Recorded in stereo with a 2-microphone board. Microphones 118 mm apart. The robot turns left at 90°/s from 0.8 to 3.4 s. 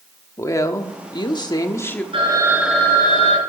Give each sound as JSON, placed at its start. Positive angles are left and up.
{"t": 0.4, "sound": "a woman speaking", "azimuth_deg": 130, "distance_m": 0.9}
{"t": 2.1, "sound": "a phone ringing", "azimuth_deg": -130, "distance_m": 4.5}